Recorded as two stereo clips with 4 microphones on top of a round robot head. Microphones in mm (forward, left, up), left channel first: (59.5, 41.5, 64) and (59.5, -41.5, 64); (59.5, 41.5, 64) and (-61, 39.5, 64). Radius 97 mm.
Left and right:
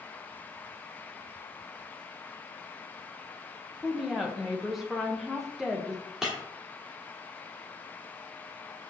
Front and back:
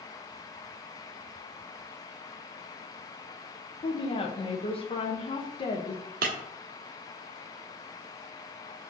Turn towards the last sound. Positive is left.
turn(degrees=-175)